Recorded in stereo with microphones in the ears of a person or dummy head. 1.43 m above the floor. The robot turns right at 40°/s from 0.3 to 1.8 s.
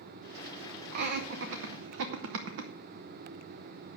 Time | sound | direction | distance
0.9 | laughter | 55° right (ahead or behind) | 0.7 m